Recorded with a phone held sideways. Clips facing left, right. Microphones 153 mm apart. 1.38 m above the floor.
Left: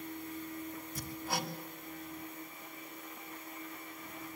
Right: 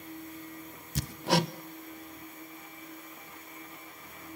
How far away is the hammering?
About 0.8 m.